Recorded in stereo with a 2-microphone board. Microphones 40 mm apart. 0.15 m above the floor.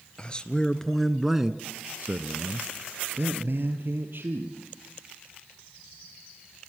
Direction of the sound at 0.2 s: 25° left (ahead or behind).